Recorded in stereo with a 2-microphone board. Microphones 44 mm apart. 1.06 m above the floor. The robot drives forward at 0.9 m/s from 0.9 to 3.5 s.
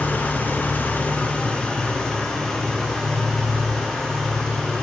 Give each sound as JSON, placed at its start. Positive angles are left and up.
{"t": 0.0, "sound": "an engine running", "side_deg": 45, "distance_m": 1.0}